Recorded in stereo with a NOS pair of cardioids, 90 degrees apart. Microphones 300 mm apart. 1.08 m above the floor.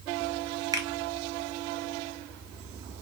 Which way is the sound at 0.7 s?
10° right.